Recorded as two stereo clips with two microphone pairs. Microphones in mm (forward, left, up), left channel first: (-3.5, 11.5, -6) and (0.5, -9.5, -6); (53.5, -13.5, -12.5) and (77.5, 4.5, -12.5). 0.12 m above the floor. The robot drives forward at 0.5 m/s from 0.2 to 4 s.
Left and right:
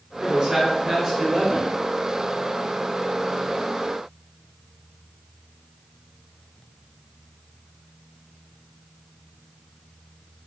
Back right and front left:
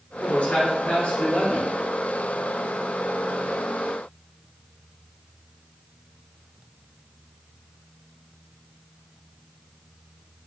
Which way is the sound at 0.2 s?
125° right.